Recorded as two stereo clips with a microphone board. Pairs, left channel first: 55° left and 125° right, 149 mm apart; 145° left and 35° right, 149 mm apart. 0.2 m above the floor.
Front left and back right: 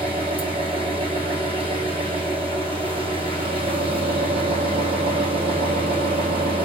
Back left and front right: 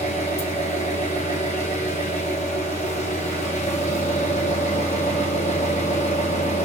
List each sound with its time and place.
0.0 s an engine running: 175° right, 2.5 m